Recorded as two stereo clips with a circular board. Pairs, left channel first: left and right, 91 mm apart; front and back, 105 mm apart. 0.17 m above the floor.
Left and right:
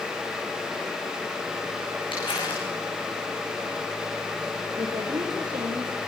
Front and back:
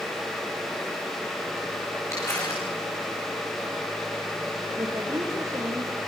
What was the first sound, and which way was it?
Crumpling, 65° left.